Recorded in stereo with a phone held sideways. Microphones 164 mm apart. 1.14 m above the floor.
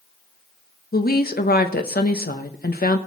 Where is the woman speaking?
70° left (ahead or behind), 1.3 m.